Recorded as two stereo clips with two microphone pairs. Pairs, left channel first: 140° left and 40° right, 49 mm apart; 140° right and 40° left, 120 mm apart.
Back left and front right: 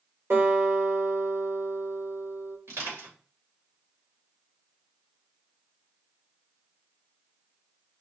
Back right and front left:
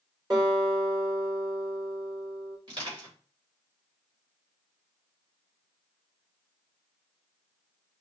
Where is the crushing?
10° right, 3 m.